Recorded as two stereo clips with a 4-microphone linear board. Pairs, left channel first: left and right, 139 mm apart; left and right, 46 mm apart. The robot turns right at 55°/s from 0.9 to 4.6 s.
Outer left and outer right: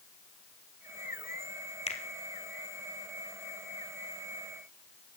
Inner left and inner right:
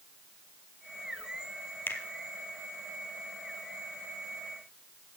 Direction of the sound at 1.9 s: 50° left (ahead or behind).